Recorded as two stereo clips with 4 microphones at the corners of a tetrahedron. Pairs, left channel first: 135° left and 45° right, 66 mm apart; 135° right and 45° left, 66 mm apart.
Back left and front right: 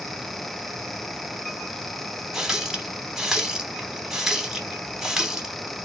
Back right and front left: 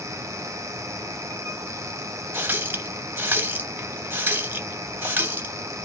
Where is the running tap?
30° left, 0.7 m.